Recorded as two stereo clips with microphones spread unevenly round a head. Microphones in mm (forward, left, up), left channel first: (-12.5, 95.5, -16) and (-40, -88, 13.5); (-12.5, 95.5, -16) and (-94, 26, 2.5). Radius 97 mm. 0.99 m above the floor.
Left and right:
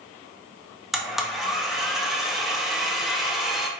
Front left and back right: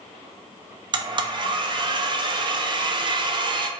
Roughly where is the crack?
I don't hear a crack.